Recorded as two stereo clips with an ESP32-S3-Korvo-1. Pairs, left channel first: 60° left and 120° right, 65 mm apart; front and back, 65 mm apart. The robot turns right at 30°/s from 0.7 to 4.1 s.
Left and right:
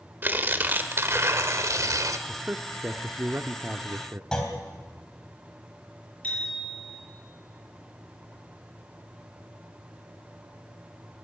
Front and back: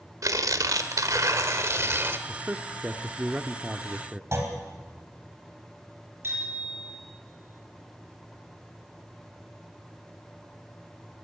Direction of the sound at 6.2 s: 130° left.